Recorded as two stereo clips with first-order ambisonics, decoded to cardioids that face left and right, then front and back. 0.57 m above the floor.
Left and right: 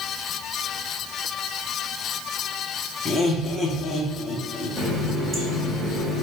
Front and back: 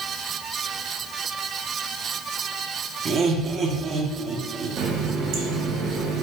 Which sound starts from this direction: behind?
A running tap, at 4.8 s.